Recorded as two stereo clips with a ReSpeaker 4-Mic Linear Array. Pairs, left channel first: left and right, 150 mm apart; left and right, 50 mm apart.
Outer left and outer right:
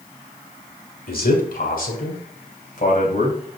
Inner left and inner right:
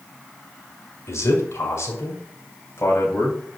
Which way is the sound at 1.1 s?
70° left (ahead or behind).